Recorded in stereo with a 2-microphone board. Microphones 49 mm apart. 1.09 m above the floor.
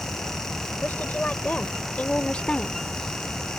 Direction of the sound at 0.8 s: 35° left (ahead or behind).